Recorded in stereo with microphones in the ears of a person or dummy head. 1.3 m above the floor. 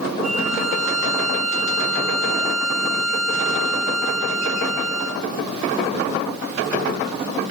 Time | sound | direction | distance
0.2 | a violin | 5° right (ahead or behind) | 1.6 m